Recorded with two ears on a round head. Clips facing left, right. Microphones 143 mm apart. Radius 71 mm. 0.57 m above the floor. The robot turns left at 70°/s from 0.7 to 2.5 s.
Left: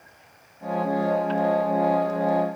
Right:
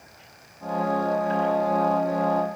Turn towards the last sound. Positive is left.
No sound to turn to.